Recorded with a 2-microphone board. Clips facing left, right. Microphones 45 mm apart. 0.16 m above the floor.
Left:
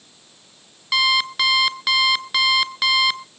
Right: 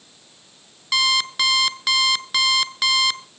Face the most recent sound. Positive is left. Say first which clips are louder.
# left 2 dB
turn(degrees=5)  # may be behind; listen again after turning